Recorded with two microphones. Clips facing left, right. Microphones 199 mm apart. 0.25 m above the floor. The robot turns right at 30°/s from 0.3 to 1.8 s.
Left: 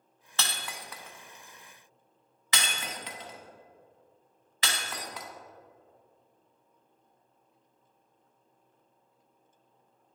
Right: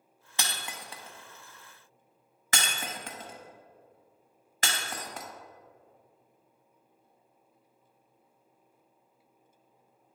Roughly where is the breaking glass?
Centre.